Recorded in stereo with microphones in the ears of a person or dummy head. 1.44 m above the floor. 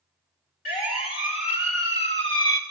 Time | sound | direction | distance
0.7 | a siren | 45° left (ahead or behind) | 4 m